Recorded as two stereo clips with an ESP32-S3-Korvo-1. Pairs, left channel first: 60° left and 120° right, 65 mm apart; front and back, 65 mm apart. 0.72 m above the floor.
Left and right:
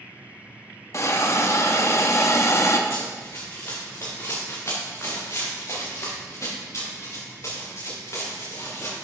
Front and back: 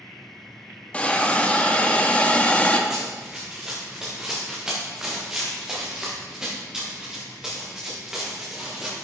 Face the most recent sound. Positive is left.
turn(degrees=100)